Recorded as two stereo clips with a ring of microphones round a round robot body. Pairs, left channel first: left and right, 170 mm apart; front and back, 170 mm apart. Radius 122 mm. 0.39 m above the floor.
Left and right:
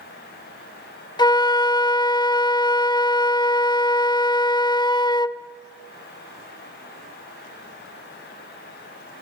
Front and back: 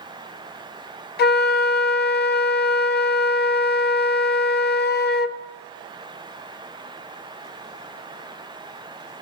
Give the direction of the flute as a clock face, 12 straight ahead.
11 o'clock.